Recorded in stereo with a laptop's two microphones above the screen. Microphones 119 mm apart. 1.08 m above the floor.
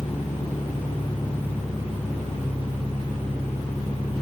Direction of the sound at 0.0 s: 75° left (ahead or behind).